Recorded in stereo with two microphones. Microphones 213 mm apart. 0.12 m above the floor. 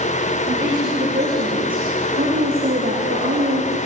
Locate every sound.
0.5 s a woman speaking: 40° right (ahead or behind), 7 m; by 3.8 s 50° right (ahead or behind), 6 m